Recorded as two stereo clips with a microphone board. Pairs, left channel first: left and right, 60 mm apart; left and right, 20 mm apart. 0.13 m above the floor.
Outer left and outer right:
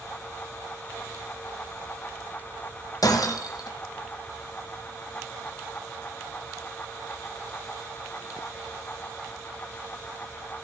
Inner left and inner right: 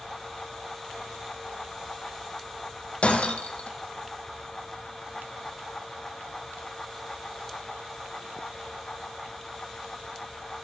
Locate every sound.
3.0 s breaking glass: 80° left, 1.9 m